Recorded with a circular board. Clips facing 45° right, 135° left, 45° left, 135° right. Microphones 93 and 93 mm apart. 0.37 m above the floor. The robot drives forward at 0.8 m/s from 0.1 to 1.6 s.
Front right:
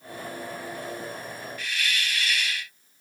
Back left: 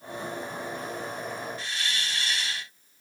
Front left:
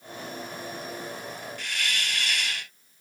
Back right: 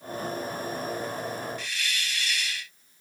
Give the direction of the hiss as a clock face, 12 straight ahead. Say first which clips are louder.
Front right 2 dB, front left 2 dB; 10 o'clock.